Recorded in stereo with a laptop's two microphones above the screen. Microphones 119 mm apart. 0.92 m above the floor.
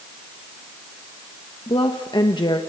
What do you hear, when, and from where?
1.7 s a woman speaking: 40° left (ahead or behind), 1.0 m